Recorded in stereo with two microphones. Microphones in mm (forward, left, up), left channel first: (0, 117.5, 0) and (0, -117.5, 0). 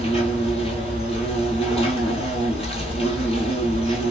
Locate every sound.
0.0 s an insect: 25° left (ahead or behind), 1.0 m